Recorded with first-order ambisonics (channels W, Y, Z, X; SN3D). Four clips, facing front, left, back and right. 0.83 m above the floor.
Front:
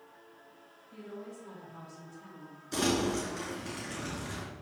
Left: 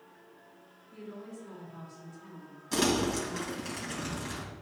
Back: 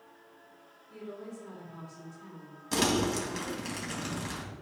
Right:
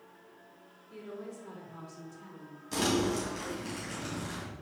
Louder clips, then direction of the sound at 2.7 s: Left 1 dB, back 2 dB; 165° left.